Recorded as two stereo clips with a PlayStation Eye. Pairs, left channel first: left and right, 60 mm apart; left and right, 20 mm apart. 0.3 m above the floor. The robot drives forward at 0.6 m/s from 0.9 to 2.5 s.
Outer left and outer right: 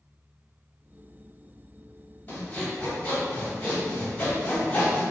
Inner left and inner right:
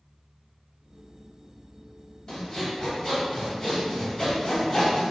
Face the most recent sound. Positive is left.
turn(degrees=25)  # may be behind; listen again after turning